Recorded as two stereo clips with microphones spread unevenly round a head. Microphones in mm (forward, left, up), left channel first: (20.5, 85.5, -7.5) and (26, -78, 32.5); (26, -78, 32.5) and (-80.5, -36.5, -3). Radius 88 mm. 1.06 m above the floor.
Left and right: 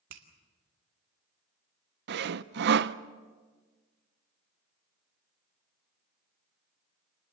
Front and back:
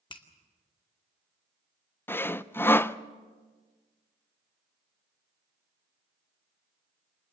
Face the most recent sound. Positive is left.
turn(degrees=-105)